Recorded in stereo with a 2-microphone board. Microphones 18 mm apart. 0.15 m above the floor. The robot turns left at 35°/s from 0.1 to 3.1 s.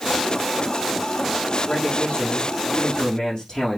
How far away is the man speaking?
About 5.5 m.